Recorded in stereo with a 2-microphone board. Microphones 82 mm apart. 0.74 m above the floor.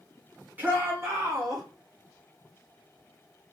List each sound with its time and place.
0.6 s a shout: 20° right (ahead or behind), 1.8 m; by 1.6 s 45° right (ahead or behind), 2 m